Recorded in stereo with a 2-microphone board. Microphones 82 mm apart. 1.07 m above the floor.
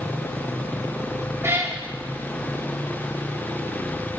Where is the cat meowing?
30° right (ahead or behind), 1.2 m.